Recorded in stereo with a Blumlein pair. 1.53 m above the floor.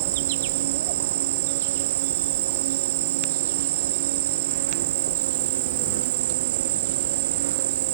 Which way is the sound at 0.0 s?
55° right.